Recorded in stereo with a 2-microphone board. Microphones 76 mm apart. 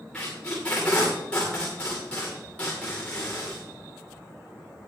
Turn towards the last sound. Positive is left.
turn(degrees=15)  # may be behind; listen again after turning